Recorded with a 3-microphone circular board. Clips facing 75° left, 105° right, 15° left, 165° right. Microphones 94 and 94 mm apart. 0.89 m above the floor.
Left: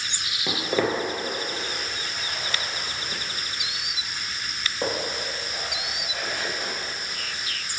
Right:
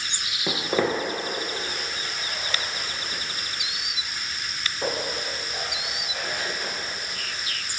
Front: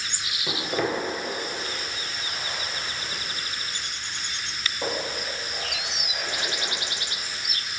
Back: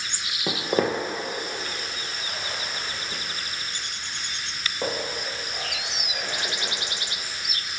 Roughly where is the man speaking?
No man speaking in this recording.